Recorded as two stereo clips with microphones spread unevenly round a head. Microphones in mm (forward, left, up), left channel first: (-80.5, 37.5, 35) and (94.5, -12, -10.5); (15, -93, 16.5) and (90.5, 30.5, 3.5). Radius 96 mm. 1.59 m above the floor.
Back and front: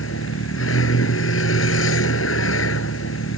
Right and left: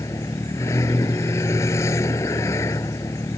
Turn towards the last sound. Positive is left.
turn(degrees=165)